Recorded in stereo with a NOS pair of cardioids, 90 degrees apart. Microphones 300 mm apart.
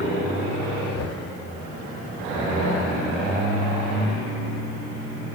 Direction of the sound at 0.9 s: 60° left.